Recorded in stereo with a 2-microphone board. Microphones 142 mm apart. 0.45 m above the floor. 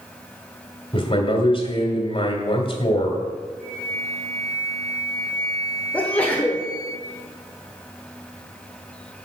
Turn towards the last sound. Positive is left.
turn(degrees=10)  # may be behind; listen again after turning